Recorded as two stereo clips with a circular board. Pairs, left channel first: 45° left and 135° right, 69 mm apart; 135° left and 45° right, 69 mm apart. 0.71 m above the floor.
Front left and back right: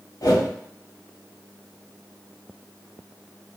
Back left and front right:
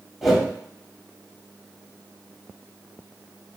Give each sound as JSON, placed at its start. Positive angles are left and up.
{"t": 0.2, "sound": "a whoosh", "azimuth_deg": 45, "distance_m": 2.0}